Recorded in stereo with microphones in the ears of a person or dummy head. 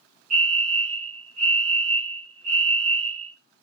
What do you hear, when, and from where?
0.3 s a fire alarm: 45° right (ahead or behind), 6.5 m